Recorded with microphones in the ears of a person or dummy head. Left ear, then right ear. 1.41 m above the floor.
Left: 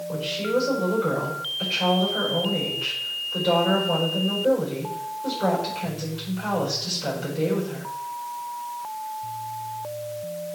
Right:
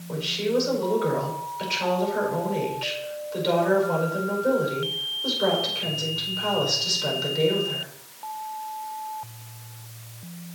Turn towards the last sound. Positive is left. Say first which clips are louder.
# right 1 dB
turn(degrees=-40)  # may be behind; listen again after turning